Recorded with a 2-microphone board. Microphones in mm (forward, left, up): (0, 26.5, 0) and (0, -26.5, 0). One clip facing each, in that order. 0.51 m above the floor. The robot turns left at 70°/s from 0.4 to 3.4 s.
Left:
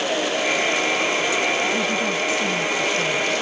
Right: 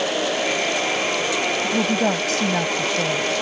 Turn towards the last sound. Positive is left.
turn(degrees=-165)